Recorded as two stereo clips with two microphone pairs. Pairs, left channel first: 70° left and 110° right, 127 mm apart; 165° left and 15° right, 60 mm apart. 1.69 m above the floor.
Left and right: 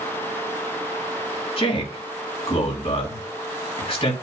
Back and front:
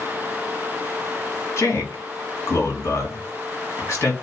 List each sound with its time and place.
1.6 s a man speaking: 115° left, 3 m